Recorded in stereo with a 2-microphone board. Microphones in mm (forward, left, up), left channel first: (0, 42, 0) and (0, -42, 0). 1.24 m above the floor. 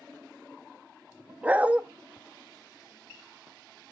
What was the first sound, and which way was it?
A dog barking, 15° right (ahead or behind).